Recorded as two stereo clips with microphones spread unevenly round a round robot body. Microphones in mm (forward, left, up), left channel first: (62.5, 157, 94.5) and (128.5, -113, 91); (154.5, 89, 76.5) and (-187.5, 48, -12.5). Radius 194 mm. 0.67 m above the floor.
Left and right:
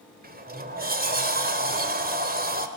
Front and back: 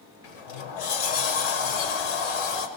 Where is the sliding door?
15° right, 1.7 m.